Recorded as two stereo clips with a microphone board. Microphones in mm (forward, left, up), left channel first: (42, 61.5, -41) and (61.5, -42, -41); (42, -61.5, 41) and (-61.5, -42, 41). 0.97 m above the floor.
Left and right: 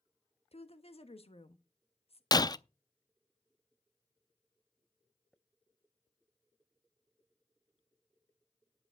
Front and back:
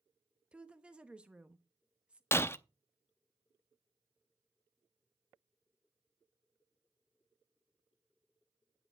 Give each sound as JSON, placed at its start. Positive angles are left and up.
{"t": 0.5, "sound": "a woman speaking", "azimuth_deg": 90, "distance_m": 1.2}
{"t": 2.3, "sound": "breaking glass", "azimuth_deg": 50, "distance_m": 0.5}